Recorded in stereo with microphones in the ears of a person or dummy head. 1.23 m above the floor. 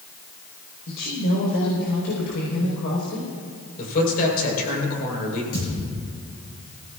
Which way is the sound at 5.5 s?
45° left (ahead or behind).